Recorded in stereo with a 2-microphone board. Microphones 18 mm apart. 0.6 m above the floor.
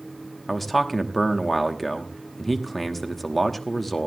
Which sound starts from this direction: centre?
A man speaking, at 0.5 s.